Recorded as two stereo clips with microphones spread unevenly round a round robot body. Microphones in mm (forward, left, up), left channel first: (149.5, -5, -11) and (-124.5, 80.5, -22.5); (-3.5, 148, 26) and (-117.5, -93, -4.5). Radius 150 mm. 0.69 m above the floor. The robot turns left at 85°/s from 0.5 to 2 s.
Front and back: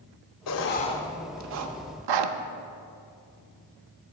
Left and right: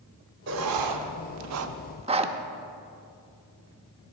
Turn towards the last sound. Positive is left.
turn(degrees=175)